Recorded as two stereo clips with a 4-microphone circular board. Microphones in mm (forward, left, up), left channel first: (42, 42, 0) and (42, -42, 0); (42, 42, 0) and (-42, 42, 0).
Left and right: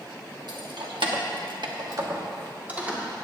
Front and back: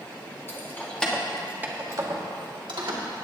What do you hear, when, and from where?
0.5 s keys jangling: 60° right, 1.5 m; by 3.0 s 165° right, 1.9 m